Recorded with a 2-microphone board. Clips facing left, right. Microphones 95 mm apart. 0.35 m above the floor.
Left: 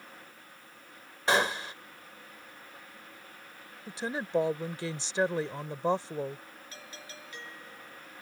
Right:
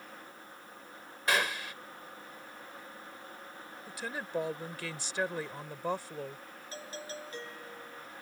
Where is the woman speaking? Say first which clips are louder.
Left 6 dB; 25° left (ahead or behind).